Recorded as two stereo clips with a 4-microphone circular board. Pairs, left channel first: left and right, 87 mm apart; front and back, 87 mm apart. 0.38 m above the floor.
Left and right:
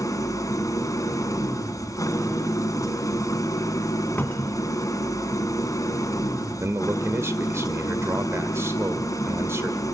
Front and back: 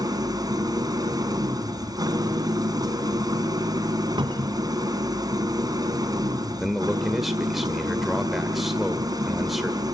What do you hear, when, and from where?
0.0 s an engine running: 140° left, 4 m
4.2 s a cupboard door: 160° left, 2.5 m
6.6 s a man speaking: 95° right, 1.4 m